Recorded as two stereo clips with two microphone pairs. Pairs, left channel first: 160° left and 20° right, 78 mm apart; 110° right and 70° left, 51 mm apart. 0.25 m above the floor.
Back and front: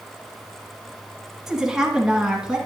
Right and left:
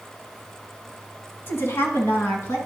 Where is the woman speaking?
100° right, 1.8 m.